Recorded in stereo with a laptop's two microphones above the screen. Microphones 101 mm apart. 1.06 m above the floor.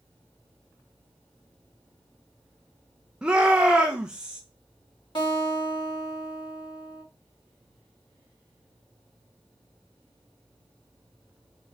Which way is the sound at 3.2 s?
10° right (ahead or behind).